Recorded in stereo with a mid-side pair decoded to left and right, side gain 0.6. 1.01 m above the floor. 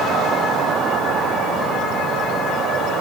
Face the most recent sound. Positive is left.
No sound to turn to.